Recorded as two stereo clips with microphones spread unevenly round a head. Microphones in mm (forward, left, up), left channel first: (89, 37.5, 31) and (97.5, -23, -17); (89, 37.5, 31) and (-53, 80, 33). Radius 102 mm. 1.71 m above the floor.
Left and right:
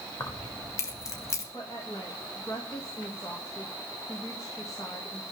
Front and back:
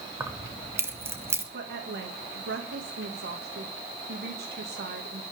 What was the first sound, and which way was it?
Keys jangling, 90° left.